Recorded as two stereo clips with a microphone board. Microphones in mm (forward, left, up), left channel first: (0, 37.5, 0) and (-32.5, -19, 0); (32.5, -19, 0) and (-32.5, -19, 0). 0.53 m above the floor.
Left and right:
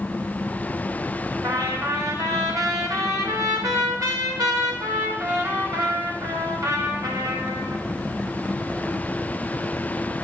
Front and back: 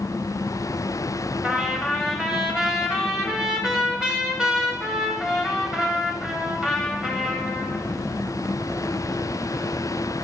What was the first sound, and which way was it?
A trumpet, 100° right.